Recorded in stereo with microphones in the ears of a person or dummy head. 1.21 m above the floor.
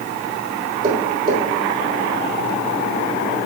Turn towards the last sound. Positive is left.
turn(degrees=-25)  # may be behind; listen again after turning